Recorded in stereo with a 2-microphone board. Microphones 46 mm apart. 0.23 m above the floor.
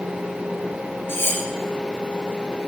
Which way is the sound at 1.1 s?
60° left (ahead or behind).